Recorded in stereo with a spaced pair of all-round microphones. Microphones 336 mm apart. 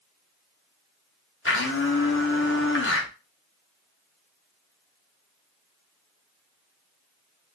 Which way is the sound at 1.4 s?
40° left (ahead or behind).